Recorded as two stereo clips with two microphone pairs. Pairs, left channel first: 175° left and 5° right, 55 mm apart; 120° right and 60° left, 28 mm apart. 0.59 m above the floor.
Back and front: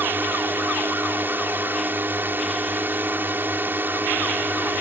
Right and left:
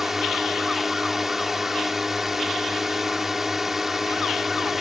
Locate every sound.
0.0 s a drone: 15° right